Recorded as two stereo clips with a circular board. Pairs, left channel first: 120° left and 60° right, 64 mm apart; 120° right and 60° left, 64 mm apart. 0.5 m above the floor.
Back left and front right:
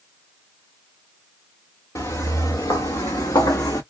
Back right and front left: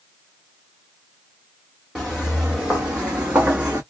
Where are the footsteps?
145° left, 2 m; by 3.8 s 125° left, 1.5 m.